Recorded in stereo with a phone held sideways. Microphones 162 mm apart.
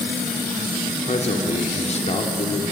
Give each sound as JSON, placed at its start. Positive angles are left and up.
{"t": 1.1, "sound": "a man speaking", "side_deg": 40, "distance_m": 2.5}